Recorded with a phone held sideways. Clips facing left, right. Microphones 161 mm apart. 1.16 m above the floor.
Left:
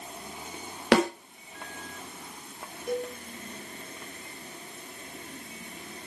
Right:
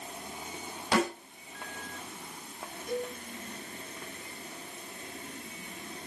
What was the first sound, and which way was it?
A snare drum, 80° left.